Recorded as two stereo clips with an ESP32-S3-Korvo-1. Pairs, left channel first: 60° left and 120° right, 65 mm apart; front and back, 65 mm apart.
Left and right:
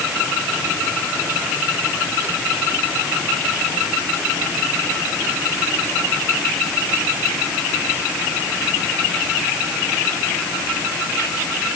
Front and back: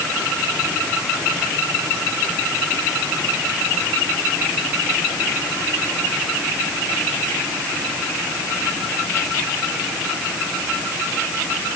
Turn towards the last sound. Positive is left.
No sound to turn to.